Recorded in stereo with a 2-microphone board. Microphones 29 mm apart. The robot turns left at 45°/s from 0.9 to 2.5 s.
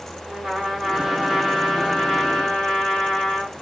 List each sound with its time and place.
0.3 s a trumpet: 165° right, 2 m; by 3.6 s 125° left, 2 m